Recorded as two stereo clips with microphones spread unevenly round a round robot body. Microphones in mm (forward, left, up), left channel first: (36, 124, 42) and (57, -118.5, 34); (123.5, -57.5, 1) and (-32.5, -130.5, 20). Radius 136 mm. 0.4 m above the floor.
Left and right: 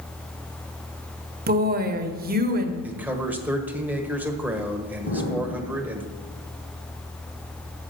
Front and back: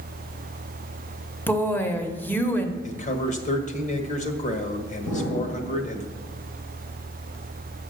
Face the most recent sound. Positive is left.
turn(degrees=45)